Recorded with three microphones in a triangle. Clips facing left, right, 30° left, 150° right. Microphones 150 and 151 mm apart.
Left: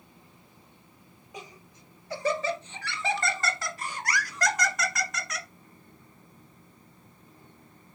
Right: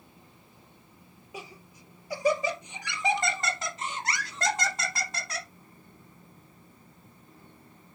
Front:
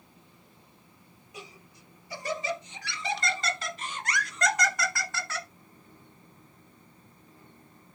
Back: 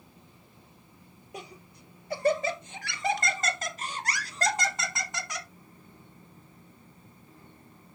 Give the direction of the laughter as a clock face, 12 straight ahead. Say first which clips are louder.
Right 1 dB, back 4 dB; 6 o'clock.